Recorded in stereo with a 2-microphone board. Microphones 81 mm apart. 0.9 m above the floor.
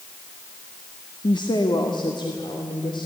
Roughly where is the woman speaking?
Left.